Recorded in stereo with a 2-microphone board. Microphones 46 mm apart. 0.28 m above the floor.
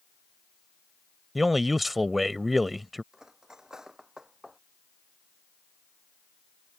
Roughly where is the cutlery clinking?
Centre.